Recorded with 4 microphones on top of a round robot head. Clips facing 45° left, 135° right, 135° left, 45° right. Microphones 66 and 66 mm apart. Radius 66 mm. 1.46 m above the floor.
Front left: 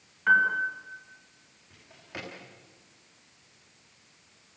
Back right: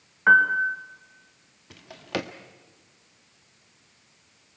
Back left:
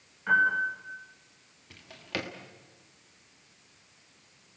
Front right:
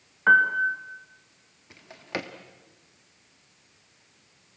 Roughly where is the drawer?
Behind right.